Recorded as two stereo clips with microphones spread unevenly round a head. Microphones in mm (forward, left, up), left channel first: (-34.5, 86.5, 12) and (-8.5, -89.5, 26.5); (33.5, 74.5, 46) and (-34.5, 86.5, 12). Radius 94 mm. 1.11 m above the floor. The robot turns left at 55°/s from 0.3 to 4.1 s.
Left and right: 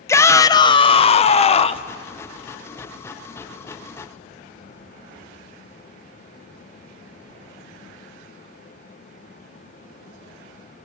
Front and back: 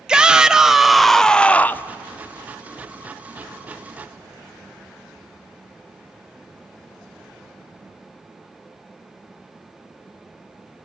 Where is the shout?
155° left, 0.7 m; by 1.9 s 70° left, 0.7 m.